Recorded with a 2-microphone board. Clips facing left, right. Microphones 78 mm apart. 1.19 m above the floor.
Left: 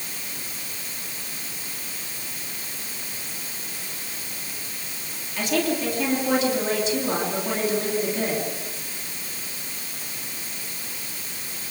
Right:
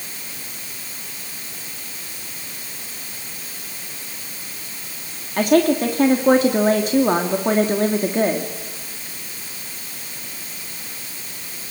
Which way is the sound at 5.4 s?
50° right (ahead or behind).